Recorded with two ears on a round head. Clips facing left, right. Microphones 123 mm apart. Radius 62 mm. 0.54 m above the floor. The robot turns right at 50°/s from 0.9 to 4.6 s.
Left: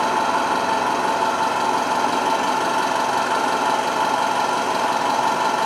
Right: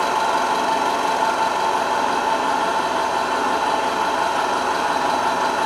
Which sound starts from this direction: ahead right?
An engine running, at 0.0 s.